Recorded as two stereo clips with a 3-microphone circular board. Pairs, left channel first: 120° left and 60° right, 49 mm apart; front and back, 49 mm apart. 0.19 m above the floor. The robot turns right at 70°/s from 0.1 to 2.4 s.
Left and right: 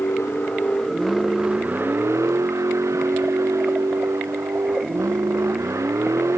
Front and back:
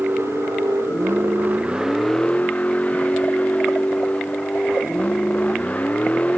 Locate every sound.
0.0 s a vehicle: 135° left; by 6.4 s 60° right